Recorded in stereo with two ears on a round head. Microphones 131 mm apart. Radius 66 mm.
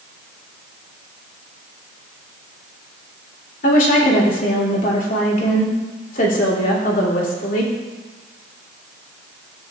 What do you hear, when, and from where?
3.6 s a woman speaking: 65° left (ahead or behind), 3 m